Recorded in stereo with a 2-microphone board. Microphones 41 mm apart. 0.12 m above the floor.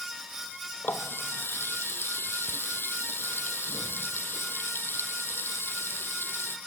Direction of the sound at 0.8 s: 65° left (ahead or behind).